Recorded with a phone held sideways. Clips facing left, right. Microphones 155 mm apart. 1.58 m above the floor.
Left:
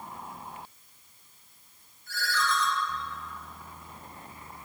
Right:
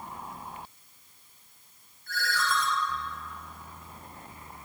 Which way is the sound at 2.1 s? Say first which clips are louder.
Even; 60° right (ahead or behind).